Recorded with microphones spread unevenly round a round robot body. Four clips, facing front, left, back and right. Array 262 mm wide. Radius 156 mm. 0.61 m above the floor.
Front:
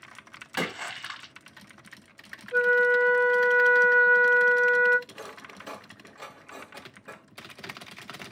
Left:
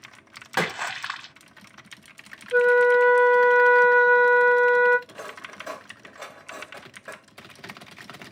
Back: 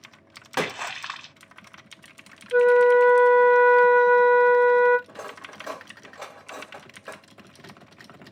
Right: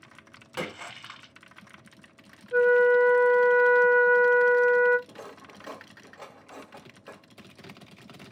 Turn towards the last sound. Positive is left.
turn(degrees=170)